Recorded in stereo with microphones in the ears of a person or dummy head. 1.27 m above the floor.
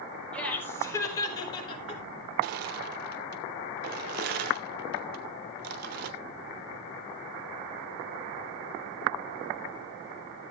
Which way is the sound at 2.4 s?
45° right (ahead or behind).